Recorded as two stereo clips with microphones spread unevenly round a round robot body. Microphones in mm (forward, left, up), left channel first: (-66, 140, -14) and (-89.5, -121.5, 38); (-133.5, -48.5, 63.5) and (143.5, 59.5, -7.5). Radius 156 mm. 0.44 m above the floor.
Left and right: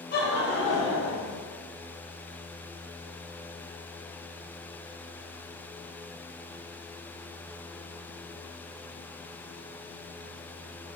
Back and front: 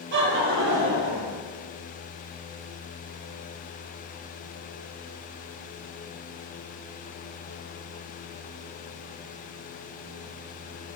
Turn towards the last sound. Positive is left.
turn(degrees=55)